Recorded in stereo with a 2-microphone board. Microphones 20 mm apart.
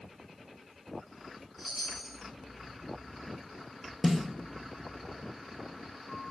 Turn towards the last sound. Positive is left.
turn(degrees=20)  # may be behind; listen again after turning